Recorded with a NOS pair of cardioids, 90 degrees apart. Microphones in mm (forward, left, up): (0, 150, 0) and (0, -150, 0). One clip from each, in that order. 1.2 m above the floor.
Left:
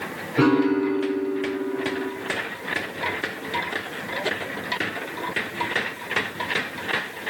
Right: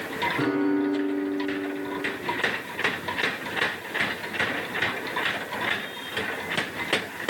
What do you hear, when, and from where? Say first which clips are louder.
0.4 s a piano: left 9 dB; 60° left, 4 m